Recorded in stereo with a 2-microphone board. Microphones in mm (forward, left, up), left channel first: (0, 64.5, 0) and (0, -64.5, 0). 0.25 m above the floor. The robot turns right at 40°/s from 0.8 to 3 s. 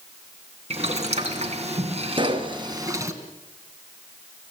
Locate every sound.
0.7 s boiling: 115° right, 2.5 m; by 3.1 s 25° right, 2.5 m
2.1 s a pop: 45° right (ahead or behind), 2 m; by 2.5 s 25° right (ahead or behind), 2 m